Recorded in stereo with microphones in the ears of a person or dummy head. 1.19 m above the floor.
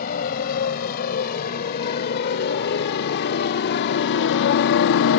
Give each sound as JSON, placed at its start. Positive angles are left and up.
{"t": 0.0, "sound": "a motorcycle", "side_deg": 50}